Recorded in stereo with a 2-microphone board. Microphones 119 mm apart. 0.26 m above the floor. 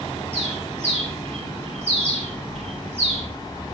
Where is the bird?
65° right (ahead or behind), 3.5 m.